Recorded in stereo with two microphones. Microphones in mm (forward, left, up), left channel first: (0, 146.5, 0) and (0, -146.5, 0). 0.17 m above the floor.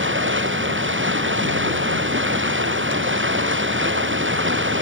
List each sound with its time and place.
0.0 s running water: 40° right (ahead or behind)